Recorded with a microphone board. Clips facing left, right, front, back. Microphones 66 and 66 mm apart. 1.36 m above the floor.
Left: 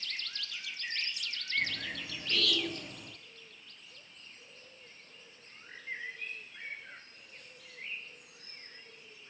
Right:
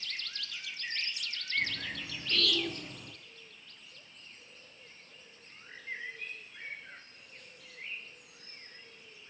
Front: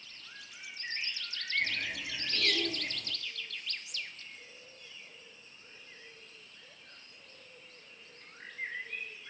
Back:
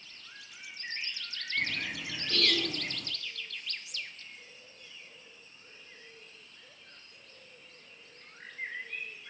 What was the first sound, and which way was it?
A bird, 175° left.